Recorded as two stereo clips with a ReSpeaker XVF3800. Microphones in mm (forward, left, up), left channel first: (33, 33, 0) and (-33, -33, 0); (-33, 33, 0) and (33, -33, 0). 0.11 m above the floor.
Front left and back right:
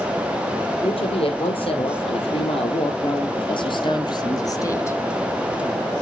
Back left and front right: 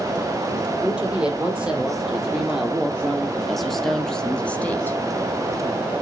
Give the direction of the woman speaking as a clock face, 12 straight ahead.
11 o'clock.